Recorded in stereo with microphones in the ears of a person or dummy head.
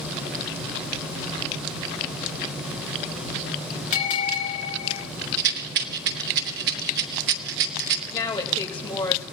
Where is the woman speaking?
25° left (ahead or behind), 2.5 m.